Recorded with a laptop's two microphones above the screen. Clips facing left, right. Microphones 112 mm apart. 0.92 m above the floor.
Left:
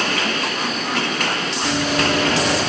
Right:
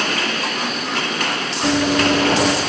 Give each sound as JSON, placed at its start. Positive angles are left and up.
{"t": 1.6, "sound": "running footsteps", "side_deg": -60, "distance_m": 3.0}